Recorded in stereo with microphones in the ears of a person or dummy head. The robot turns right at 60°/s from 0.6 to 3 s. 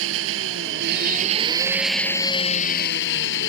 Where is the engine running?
80° right; by 3.5 s 65° left.